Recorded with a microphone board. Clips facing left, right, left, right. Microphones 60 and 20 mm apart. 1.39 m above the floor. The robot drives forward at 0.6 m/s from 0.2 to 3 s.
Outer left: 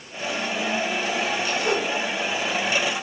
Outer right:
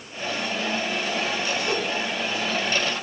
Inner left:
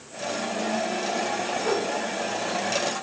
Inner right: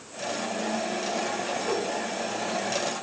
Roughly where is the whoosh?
Left.